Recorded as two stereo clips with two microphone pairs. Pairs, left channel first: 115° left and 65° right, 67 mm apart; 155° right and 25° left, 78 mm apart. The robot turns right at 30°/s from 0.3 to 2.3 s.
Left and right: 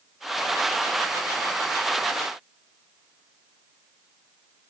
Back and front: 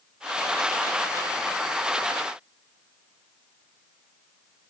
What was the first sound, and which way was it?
Only background noise.